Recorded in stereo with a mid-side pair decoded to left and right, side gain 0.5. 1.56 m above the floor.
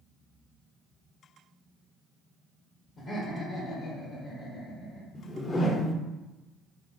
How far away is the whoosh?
About 0.7 m.